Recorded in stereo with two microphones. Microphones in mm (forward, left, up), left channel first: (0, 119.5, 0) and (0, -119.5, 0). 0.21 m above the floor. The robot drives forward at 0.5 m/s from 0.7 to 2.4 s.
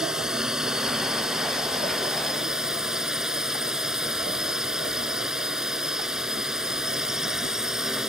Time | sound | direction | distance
0.0 | a drone | centre (ahead or behind) | ?